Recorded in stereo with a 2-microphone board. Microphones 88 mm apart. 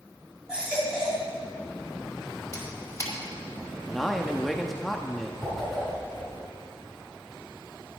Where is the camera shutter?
35° left (ahead or behind), 1.8 m.